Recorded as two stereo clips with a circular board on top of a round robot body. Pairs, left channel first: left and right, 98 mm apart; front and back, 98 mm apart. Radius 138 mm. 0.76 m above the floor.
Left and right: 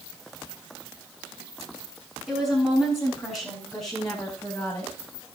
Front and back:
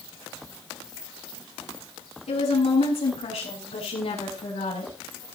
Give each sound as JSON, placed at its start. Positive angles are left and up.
{"t": 2.3, "sound": "a woman speaking", "azimuth_deg": -5, "distance_m": 5.5}